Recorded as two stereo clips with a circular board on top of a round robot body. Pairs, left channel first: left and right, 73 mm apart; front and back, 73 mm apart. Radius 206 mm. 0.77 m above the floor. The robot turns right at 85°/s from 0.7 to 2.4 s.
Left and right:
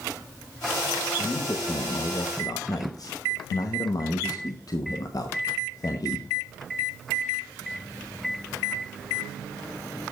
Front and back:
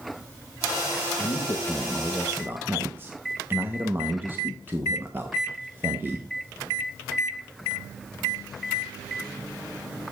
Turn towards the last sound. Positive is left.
turn(degrees=120)